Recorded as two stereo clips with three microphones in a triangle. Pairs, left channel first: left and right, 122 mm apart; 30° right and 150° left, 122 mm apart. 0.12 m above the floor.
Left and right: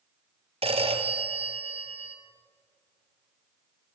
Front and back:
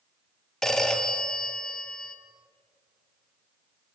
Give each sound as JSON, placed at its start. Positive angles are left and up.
{"t": 0.6, "sound": "a phone ringing", "azimuth_deg": -115, "distance_m": 2.0}